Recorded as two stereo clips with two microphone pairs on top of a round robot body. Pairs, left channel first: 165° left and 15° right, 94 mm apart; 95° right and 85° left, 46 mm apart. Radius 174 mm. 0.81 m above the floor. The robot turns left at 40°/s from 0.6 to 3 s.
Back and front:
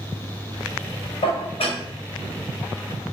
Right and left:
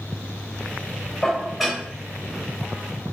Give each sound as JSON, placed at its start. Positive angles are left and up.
{"t": 1.2, "sound": "dishes clattering", "azimuth_deg": -175, "distance_m": 3.0}